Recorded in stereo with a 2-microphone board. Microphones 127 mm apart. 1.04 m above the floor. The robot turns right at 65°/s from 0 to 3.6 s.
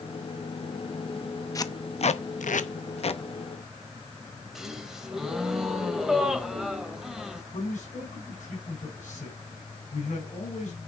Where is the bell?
No bell in this recording.